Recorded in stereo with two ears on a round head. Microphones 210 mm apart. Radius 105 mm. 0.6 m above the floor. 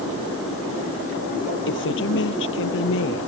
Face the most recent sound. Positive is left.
turn(degrees=60)  # may be behind; listen again after turning